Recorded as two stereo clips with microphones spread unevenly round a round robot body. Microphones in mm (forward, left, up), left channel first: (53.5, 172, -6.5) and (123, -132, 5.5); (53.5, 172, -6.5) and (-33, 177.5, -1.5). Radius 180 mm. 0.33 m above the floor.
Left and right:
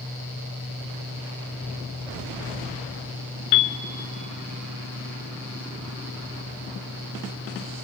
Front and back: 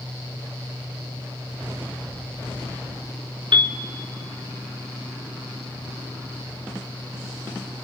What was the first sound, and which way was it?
A piano, 145° left.